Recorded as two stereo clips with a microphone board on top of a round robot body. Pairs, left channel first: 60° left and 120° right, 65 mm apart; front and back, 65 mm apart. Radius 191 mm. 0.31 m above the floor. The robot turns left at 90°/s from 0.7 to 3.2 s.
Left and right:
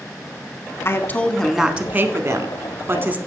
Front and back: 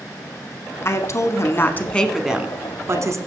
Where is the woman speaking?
35° left, 1.1 m; by 3.2 s 175° right, 1.1 m.